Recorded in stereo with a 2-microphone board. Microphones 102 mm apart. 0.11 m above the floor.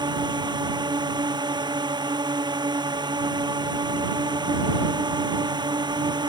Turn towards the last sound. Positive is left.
turn(degrees=-45)  # may be behind; listen again after turning